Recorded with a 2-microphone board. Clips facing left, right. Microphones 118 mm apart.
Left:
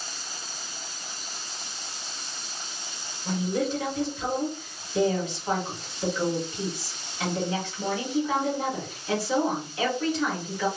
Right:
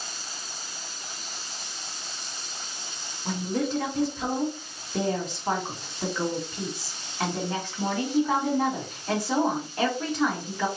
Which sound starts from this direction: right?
A woman speaking, at 3.2 s.